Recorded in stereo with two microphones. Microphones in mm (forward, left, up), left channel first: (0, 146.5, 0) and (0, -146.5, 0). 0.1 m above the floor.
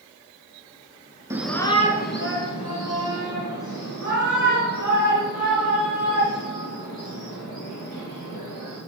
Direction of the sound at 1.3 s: 10° right (ahead or behind).